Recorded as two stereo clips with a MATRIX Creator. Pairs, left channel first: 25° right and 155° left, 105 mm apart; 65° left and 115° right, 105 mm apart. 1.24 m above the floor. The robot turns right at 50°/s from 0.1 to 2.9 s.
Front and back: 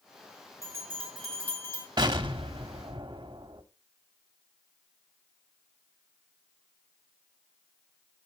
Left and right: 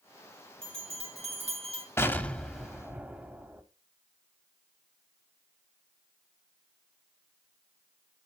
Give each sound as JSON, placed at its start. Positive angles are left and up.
{"t": 0.6, "sound": "a bell", "azimuth_deg": -140, "distance_m": 3.5}
{"t": 2.0, "sound": "an explosion", "azimuth_deg": 125, "distance_m": 1.0}